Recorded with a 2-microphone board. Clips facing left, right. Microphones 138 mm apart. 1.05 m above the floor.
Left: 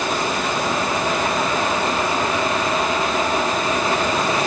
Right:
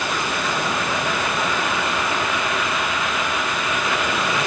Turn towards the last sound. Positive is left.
No sound to turn to.